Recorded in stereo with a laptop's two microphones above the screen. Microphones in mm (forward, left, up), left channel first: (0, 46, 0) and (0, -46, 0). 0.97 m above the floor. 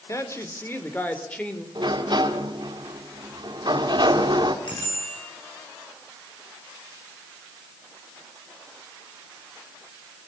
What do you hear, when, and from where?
0.1 s a woman speaking: 35° left (ahead or behind), 3.5 m; by 1.6 s 10° left (ahead or behind), 3.5 m
1.8 s a sliding door: 50° right (ahead or behind), 2.5 m
4.7 s a bicycle bell: 55° left (ahead or behind), 9.5 m